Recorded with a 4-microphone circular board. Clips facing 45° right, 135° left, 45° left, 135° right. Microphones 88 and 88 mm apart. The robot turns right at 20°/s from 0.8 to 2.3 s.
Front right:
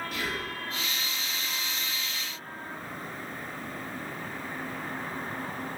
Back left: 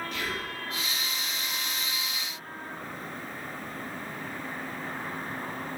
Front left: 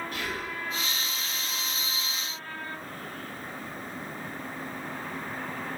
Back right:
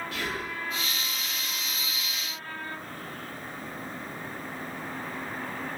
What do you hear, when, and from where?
0.1 s whispering: 130° right, 1.0 m